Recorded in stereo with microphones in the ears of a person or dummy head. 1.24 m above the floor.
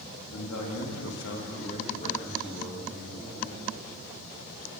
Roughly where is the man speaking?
Left.